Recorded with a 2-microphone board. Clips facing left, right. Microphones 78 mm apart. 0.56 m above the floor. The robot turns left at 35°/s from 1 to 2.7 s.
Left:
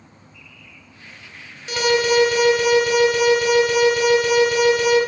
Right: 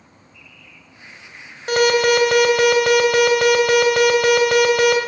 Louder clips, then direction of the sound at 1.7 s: Right 3 dB; 60° right.